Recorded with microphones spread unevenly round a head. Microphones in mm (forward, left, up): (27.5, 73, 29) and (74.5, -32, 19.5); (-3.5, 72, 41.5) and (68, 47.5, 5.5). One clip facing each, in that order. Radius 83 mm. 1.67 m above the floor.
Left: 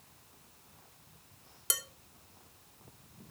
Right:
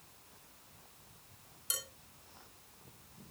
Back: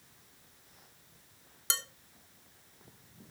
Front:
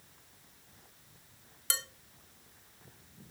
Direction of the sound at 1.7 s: 115° left.